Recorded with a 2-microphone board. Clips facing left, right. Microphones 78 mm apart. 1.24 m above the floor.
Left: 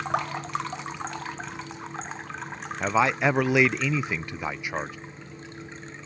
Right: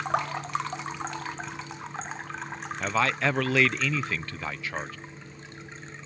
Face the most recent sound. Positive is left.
turn(degrees=15)  # may be behind; listen again after turning